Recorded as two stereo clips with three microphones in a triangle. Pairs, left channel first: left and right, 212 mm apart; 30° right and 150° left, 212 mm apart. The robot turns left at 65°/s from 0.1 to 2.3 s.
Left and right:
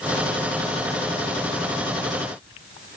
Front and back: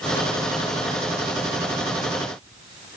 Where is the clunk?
No clunk in this recording.